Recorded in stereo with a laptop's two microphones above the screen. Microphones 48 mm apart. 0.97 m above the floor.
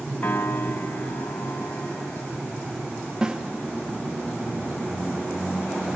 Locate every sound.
0.2 s a piano: 60° left (ahead or behind), 1.1 m
3.2 s a snare drum: 15° right (ahead or behind), 0.7 m